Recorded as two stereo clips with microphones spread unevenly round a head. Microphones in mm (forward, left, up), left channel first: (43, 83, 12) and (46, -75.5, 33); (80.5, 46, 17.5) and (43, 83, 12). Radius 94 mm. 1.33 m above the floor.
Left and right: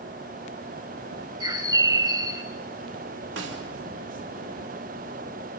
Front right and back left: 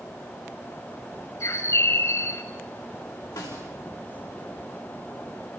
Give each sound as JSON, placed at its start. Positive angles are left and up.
{"t": 1.4, "sound": "a bird", "azimuth_deg": -25, "distance_m": 2.5}
{"t": 3.4, "sound": "a snare drum", "azimuth_deg": -90, "distance_m": 3.0}